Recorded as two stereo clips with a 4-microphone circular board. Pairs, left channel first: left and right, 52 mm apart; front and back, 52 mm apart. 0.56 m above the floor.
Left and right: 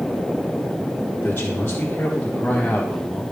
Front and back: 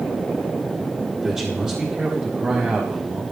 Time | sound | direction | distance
1.2 | a man speaking | 105° left | 1.8 m